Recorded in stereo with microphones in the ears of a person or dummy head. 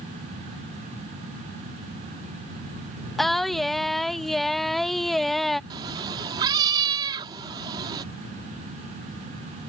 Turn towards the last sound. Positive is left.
turn(degrees=-20)  # may be behind; listen again after turning